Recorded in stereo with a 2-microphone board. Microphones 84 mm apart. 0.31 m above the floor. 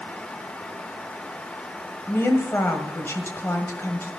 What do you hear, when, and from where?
2.1 s a woman speaking: 30° left (ahead or behind), 1.7 m